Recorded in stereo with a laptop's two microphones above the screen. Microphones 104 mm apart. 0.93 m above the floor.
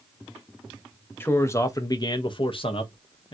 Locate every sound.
1.2 s a man speaking: 20° left (ahead or behind), 0.9 m; by 3.3 s 55° left (ahead or behind), 0.8 m